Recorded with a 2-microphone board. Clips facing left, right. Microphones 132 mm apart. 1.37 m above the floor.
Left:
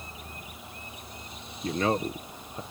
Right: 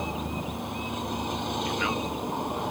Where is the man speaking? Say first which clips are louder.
Left 2 dB; 40° left (ahead or behind).